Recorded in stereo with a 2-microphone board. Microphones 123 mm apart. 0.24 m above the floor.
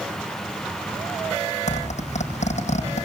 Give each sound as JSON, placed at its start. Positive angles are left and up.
{"t": 1.7, "sound": "a zipper", "side_deg": 65, "distance_m": 8.5}